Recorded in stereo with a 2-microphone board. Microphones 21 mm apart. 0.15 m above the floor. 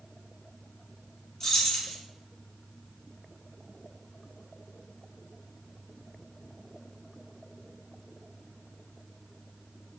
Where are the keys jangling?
20° left (ahead or behind), 0.8 m.